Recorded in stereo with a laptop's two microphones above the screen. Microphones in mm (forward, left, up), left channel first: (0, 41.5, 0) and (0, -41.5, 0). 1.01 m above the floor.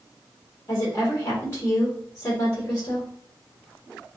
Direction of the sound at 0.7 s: 35° left (ahead or behind).